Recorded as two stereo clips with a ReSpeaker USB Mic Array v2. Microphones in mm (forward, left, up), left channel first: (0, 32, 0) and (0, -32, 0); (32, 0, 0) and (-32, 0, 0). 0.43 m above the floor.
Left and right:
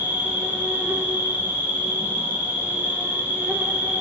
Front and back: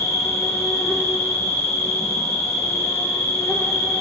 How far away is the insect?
About 1.7 m.